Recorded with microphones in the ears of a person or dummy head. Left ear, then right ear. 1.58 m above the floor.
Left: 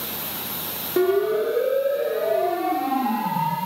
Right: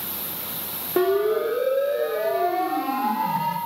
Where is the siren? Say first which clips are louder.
Even; 40° right (ahead or behind), 7 m; by 3.6 s 55° right (ahead or behind), 7.5 m.